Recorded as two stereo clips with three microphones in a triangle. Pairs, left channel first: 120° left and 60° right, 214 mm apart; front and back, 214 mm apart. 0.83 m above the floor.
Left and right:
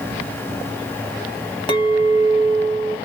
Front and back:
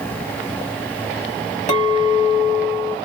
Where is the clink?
50° left, 1.0 m.